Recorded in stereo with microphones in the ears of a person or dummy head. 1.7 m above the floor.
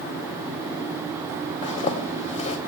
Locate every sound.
1.6 s a zipper: 35° left (ahead or behind), 0.9 m